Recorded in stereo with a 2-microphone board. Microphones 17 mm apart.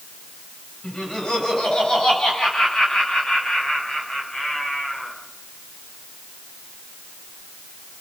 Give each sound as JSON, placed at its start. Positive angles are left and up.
{"t": 0.8, "sound": "laughter", "side_deg": 75, "distance_m": 7.0}